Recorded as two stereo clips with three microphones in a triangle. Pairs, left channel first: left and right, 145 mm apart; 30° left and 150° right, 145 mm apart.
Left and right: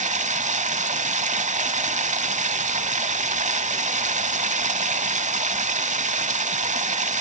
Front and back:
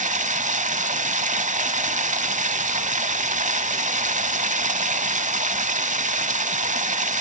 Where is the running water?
120° right, 0.9 m.